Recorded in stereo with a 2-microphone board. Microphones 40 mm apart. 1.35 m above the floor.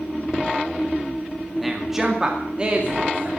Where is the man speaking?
Centre (ahead or behind), 2 m; by 3.3 s 35° right (ahead or behind), 3 m.